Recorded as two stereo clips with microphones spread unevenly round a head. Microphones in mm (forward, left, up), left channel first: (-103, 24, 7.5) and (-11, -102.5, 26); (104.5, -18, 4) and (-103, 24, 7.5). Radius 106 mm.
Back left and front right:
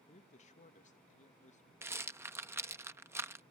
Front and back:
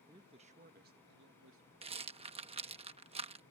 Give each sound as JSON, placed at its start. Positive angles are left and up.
{"t": 0.1, "sound": "a man speaking", "azimuth_deg": 100}
{"t": 1.8, "sound": "a rattle", "azimuth_deg": -130}